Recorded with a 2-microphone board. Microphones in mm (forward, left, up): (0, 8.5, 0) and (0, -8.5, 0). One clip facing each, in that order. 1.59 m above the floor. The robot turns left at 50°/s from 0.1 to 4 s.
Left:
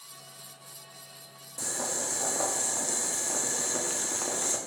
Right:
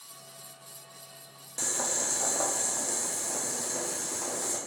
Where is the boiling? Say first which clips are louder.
Right 2 dB; 135° right, 0.6 m; by 4.6 s 105° left, 0.6 m.